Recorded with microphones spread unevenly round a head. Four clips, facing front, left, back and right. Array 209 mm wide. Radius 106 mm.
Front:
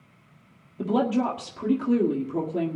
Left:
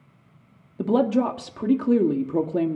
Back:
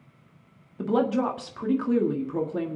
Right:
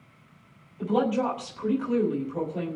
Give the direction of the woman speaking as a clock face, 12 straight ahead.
9 o'clock.